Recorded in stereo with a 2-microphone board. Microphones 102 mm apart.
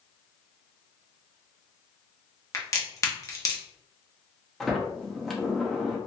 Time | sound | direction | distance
2.5 | a crack | 30° left (ahead or behind) | 0.7 m
4.6 | a sliding door | 5° left (ahead or behind) | 0.6 m